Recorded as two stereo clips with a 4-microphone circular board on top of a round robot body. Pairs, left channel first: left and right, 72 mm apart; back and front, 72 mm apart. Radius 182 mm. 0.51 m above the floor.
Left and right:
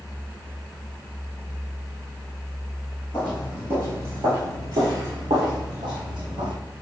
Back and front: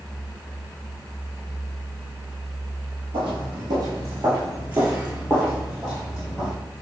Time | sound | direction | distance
3.1 | footsteps | 20° left | 0.7 m